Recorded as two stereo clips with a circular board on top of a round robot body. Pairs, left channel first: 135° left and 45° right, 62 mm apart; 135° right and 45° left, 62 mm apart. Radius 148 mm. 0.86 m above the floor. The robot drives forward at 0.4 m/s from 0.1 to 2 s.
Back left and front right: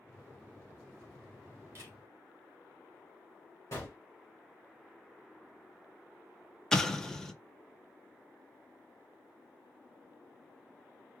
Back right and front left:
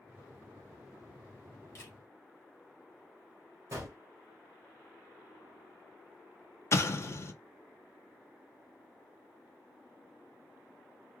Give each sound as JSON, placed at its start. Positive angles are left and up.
{"t": 1.8, "sound": "a camera shutter", "azimuth_deg": -90, "distance_m": 1.0}
{"t": 3.7, "sound": "a gunshot", "azimuth_deg": 95, "distance_m": 0.7}
{"t": 6.7, "sound": "an explosion", "azimuth_deg": -145, "distance_m": 0.8}